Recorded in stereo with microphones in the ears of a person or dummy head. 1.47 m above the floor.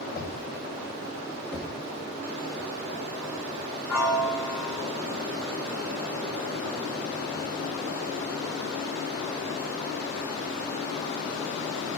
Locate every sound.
0.1 s knocking: 45° left (ahead or behind), 6.5 m
1.5 s knocking: 5° right (ahead or behind), 1.5 m
3.9 s a piano: 15° left (ahead or behind), 5 m